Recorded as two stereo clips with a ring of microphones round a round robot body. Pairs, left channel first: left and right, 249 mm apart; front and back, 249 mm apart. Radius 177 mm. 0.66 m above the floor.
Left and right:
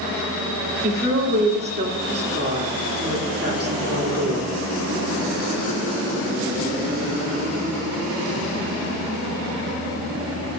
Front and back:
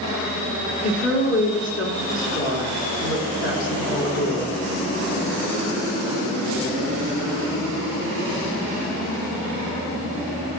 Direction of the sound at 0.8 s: 45° right.